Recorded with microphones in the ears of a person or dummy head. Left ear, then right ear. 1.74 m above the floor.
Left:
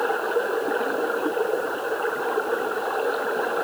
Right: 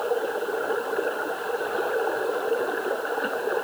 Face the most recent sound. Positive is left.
No sound to turn to.